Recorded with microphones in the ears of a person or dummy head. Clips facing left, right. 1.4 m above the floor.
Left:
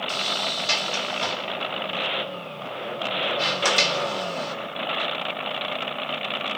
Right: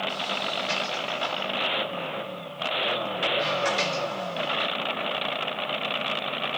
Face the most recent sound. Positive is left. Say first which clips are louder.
# left 1 dB
turn(degrees=60)  # may be behind; listen again after turning